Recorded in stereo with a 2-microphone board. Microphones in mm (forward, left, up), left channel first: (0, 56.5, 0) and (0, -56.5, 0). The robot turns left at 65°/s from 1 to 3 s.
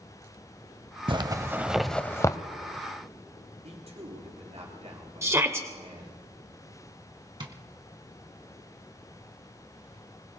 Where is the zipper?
40° right (ahead or behind), 0.7 m; by 2.4 s 35° left (ahead or behind), 0.7 m.